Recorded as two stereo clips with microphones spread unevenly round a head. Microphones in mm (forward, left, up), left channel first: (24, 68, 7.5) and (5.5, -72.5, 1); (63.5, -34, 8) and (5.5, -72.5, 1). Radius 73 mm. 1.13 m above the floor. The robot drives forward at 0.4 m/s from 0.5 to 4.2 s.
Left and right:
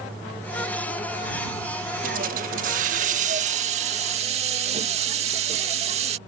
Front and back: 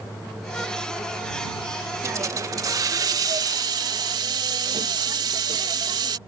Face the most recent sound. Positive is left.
turn(degrees=-145)